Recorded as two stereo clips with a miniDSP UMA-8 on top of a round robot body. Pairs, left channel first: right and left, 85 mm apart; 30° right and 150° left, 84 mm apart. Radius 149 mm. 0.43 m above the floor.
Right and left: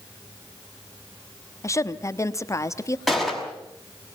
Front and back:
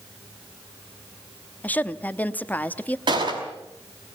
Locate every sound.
1.6 s a woman speaking: 85° right, 1.2 m
3.1 s a gunshot: straight behind, 5.5 m